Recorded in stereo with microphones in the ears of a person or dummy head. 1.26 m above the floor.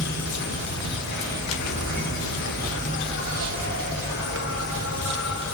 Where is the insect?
65° left (ahead or behind), 4.5 m.